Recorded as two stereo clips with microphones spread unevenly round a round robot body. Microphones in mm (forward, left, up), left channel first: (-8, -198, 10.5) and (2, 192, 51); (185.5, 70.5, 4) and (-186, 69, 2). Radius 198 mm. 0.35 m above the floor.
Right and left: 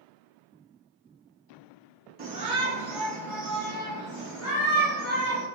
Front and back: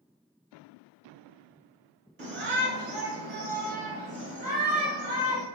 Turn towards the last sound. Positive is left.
turn(degrees=-105)